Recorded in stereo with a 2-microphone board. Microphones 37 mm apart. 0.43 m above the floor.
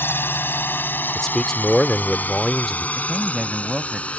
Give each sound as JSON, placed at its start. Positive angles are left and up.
{"t": 0.0, "sound": "a drone", "side_deg": 60}
{"t": 1.1, "sound": "a man speaking", "side_deg": 15}
{"t": 3.0, "sound": "a man speaking", "side_deg": -10}